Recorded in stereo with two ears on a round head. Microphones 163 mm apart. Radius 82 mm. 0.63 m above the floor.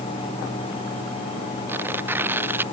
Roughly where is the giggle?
No giggle in this recording.